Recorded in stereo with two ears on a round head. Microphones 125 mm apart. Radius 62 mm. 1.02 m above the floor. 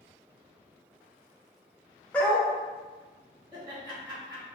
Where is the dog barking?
10° left (ahead or behind), 0.7 m.